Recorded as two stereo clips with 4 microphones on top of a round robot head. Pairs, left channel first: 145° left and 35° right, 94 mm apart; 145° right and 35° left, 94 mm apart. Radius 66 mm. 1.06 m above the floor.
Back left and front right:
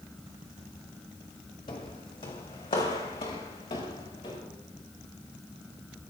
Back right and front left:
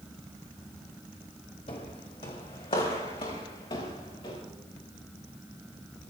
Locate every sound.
1.7 s footsteps: 175° right, 2.5 m; by 4.4 s straight behind, 6 m